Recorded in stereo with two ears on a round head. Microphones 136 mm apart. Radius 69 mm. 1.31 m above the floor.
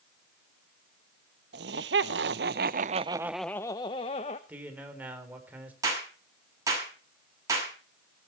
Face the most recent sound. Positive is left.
turn(degrees=-20)  # may be behind; listen again after turning